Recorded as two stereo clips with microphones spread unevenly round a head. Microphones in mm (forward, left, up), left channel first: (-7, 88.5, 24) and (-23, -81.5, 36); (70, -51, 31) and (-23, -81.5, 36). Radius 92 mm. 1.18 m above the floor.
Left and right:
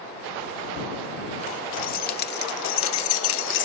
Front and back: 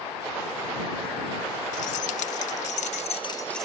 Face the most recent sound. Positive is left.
turn(degrees=110)